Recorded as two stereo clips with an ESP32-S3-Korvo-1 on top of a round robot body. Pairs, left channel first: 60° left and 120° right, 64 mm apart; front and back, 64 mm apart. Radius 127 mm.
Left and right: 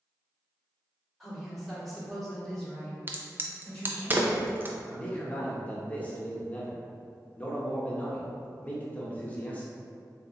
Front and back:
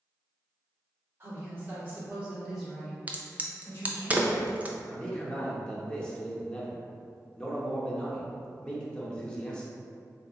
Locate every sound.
1.2 s a woman speaking: 150° left, 1.9 m; by 4.1 s straight ahead, 1.6 m
3.1 s a crack: 135° right, 0.6 m
4.9 s a man speaking: 55° left, 1.0 m